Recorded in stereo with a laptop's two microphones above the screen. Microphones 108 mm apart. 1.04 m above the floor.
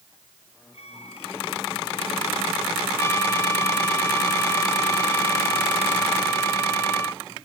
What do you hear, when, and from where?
0.7 s a violin: 80° left
3.0 s a trumpet: 25° left (ahead or behind)